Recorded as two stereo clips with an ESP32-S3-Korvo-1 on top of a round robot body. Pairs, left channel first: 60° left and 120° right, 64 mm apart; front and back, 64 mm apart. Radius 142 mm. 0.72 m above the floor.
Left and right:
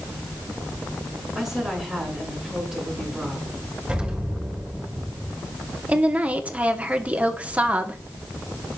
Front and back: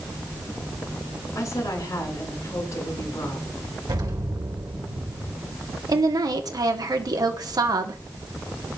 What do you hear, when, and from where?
1.4 s a woman speaking: 35° right, 8 m
3.9 s an explosion: 165° left, 3 m
5.9 s a woman speaking: 175° left, 1.8 m